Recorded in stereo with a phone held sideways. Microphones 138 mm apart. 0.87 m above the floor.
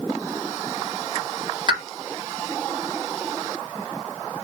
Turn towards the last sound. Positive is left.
turn(degrees=-30)  # may be behind; listen again after turning